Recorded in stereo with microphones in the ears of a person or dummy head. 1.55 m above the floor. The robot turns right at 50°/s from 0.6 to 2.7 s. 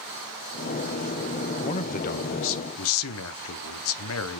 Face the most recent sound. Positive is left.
turn(degrees=85)